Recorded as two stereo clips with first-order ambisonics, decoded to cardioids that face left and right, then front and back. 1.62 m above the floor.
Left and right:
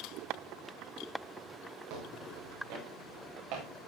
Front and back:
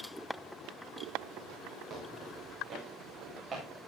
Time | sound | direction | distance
1.9 | footsteps | 120° right | 8.5 m